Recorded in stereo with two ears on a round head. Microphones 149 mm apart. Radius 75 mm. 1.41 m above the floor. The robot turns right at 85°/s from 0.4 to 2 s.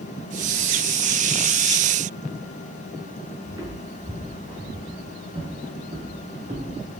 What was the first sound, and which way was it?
Footsteps, 20° right (ahead or behind).